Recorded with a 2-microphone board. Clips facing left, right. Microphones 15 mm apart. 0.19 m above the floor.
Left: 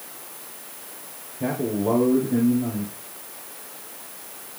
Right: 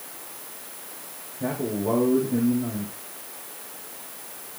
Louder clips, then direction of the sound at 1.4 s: Left 3 dB; 25° left (ahead or behind).